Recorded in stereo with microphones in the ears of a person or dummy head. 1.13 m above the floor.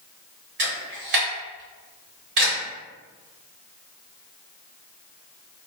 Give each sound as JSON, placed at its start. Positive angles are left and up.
{"t": 0.6, "sound": "a camera shutter", "side_deg": -60, "distance_m": 1.6}